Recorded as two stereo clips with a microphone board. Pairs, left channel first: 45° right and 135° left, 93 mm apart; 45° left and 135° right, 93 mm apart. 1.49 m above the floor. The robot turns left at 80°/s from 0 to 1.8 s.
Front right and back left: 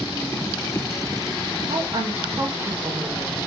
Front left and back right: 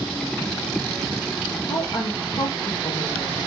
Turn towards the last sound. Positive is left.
turn(degrees=90)